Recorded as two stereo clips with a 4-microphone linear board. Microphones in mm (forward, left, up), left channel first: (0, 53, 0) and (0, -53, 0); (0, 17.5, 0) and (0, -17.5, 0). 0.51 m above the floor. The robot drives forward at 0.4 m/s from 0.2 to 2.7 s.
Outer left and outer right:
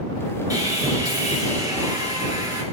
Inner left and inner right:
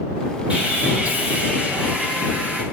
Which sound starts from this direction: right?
Sawing, at 0.5 s.